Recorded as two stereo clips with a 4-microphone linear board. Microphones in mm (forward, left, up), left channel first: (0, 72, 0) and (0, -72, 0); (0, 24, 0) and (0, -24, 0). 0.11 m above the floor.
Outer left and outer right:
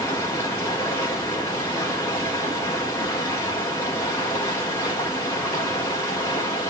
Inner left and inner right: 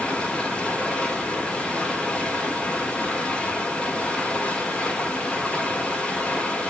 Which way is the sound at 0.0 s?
20° left (ahead or behind).